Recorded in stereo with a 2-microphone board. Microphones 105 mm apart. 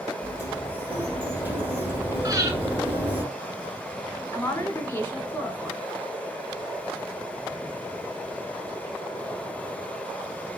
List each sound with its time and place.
0.2 s a sliding door: 15° right (ahead or behind), 1.2 m
2.2 s breathing: 35° right (ahead or behind), 1.0 m
4.3 s a woman speaking: 20° left (ahead or behind), 1.2 m